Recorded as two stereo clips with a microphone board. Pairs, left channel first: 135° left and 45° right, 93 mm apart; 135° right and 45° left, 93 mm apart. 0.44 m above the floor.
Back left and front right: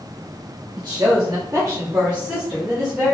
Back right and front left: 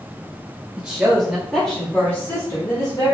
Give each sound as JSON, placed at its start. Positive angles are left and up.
{"t": 0.8, "sound": "a woman speaking", "azimuth_deg": -25, "distance_m": 1.4}